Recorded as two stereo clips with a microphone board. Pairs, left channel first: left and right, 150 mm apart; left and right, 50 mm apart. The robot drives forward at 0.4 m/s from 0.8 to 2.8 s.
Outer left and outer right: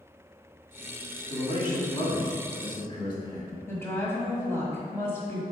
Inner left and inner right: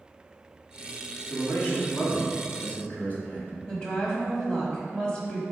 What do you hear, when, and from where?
1.3 s a man speaking: 30° left (ahead or behind), 2 m; by 3.6 s 35° left (ahead or behind), 1.9 m
3.7 s a woman speaking: 15° left (ahead or behind), 1.2 m